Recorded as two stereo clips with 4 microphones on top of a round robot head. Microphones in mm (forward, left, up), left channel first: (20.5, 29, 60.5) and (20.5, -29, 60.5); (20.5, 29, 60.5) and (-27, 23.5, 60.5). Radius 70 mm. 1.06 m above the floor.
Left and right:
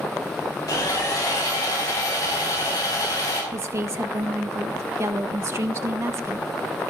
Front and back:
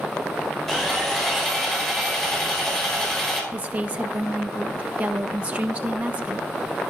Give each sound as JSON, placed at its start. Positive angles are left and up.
{"t": 0.7, "sound": "sawing", "azimuth_deg": 90, "distance_m": 4.5}
{"t": 3.5, "sound": "a woman speaking", "azimuth_deg": -120, "distance_m": 0.8}